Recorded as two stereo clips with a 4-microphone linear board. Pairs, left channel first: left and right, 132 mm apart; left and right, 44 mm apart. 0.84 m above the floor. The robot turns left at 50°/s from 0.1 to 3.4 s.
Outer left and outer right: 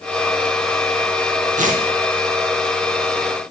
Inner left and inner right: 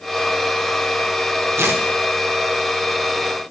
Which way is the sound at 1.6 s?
80° right.